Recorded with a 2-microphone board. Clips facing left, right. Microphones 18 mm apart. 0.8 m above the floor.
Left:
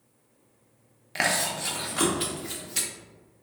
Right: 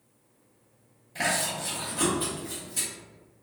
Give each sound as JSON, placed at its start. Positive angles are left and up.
{"t": 1.1, "sound": "chewing", "side_deg": 55, "distance_m": 0.5}